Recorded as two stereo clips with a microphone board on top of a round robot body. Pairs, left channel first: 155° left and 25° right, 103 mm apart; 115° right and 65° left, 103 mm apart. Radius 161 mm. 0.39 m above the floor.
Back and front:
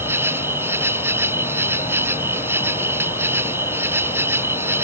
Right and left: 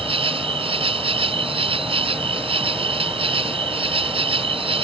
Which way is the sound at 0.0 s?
45° left.